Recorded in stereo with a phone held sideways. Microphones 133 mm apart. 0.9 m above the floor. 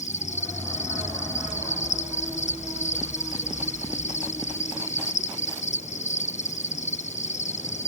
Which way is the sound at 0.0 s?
60° left (ahead or behind).